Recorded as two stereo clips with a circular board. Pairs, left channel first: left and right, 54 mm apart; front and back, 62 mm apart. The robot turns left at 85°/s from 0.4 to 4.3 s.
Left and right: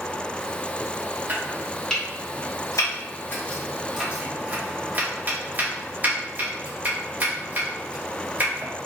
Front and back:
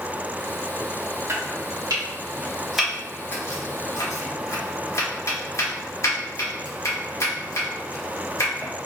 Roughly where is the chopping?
Behind right.